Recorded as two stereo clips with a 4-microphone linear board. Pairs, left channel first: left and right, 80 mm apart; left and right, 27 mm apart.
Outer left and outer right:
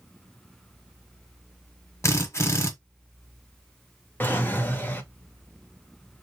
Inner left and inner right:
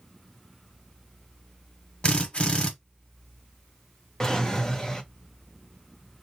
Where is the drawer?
25° left (ahead or behind), 0.6 m.